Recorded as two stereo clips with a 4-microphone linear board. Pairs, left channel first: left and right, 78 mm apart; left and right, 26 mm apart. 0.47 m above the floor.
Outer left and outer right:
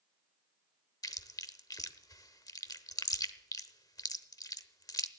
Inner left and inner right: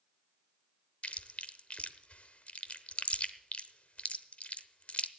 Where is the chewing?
50° left (ahead or behind), 0.8 m.